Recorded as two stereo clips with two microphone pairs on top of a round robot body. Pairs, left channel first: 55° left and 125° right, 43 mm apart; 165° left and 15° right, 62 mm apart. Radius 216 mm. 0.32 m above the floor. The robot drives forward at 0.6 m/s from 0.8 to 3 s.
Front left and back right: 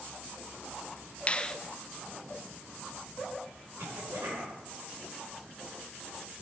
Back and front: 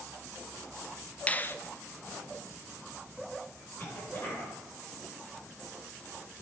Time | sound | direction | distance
1.3 | a finger snap | 105° left | 0.8 m
3.8 | a cough | 140° right | 7 m